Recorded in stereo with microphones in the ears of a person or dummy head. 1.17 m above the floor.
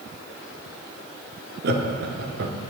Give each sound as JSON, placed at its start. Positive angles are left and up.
{"t": 1.6, "sound": "laughter", "side_deg": -50, "distance_m": 0.6}